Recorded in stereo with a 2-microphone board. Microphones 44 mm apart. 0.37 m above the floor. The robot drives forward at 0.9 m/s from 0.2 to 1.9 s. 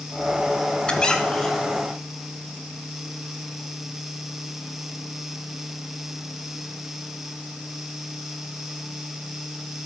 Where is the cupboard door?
No cupboard door in this recording.